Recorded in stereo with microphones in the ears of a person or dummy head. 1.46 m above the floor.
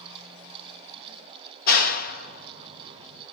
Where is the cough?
I don't hear a cough.